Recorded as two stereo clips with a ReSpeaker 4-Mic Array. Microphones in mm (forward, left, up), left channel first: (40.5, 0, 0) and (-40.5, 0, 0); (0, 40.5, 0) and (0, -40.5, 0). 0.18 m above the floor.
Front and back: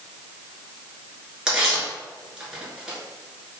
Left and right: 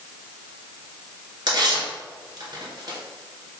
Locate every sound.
1.5 s tearing paper: 100° right, 1.1 m